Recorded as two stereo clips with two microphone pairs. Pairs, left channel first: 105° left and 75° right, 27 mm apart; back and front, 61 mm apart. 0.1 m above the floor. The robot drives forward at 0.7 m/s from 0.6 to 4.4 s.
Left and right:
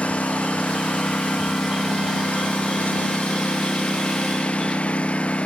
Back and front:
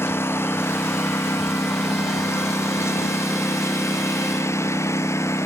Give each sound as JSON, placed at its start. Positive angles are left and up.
{"t": 0.0, "sound": "a lawn mower", "azimuth_deg": 135}